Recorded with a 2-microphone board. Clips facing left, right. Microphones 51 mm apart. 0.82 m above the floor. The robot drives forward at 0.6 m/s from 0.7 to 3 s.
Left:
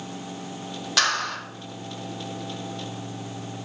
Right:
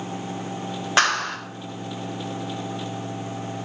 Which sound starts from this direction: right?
A clap, at 1.0 s.